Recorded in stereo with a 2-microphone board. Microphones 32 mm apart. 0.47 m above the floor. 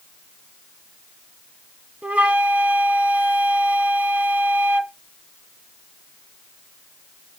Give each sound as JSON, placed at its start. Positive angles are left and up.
{"t": 2.0, "sound": "a flute", "side_deg": -45, "distance_m": 0.8}